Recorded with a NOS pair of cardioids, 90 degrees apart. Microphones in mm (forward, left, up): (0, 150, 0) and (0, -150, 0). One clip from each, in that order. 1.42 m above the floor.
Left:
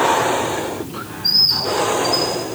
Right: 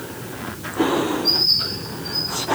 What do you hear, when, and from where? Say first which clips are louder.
1.2 s a bird: left 5 dB; 50° left, 4.5 m